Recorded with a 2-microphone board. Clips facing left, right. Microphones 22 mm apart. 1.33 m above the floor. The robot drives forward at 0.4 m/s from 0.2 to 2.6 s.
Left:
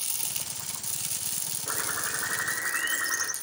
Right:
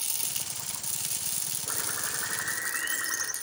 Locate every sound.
1.7 s a bird: 10° left (ahead or behind), 0.9 m